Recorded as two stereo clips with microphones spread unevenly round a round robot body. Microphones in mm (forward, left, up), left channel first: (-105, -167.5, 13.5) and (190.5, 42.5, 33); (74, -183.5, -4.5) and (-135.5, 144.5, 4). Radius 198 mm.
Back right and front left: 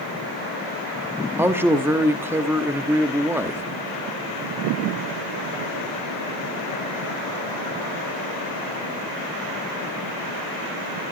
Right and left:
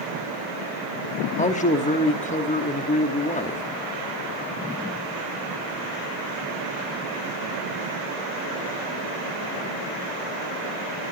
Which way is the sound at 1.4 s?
45° right.